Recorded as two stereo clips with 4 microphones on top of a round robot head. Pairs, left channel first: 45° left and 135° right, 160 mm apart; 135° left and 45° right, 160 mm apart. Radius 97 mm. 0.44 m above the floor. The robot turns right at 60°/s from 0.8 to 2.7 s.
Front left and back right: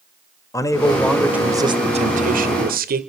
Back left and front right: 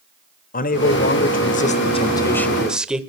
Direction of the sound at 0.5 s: 115° left.